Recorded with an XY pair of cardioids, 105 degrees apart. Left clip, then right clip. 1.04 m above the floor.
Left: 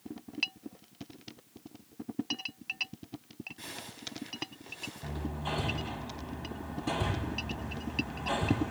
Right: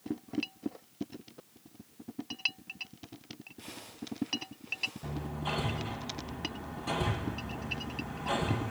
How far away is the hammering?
About 7 m.